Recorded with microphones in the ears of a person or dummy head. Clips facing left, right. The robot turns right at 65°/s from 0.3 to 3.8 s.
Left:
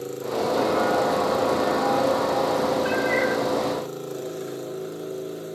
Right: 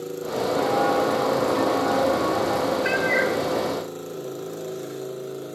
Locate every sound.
0.6 s footsteps: 10° right (ahead or behind), 2.5 m
2.8 s a cat meowing: 30° right, 2 m; by 3.4 s 5° left, 2 m